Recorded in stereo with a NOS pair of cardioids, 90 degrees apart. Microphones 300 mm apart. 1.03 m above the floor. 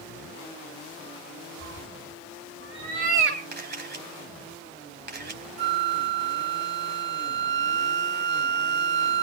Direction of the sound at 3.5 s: 35° right.